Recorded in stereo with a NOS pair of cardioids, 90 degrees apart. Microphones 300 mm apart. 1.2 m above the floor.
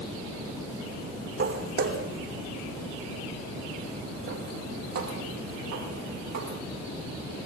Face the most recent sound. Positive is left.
turn(degrees=-70)